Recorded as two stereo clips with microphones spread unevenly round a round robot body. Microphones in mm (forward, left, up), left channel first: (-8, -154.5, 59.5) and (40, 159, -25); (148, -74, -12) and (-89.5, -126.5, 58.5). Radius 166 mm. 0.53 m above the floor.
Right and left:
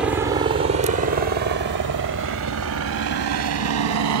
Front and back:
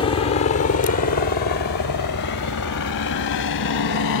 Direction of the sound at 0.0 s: 20° left.